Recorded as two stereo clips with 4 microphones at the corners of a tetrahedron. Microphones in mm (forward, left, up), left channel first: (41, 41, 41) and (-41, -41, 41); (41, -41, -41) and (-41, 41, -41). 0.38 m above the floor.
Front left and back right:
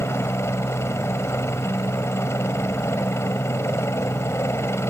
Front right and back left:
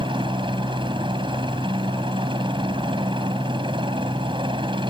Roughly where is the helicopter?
Left.